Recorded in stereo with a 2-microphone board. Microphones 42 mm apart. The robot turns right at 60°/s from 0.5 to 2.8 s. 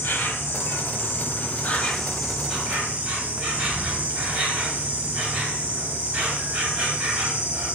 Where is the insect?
80° left, 0.9 m; by 7.8 s 145° right, 0.9 m.